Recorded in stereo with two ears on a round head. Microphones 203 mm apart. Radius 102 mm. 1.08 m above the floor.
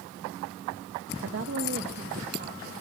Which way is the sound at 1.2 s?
55° right (ahead or behind).